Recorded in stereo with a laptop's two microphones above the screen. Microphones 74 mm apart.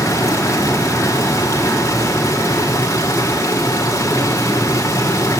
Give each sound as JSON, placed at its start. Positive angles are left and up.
{"t": 0.0, "sound": "running water", "side_deg": 40, "distance_m": 3.5}